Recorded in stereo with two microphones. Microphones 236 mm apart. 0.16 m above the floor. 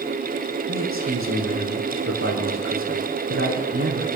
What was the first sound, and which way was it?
A man speaking, 60° right (ahead or behind).